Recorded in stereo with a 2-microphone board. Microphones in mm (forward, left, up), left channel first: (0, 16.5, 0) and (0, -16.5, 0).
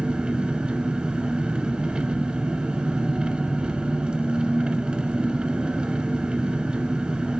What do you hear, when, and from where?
0.0 s an engine running: 30° right (ahead or behind), 1.8 m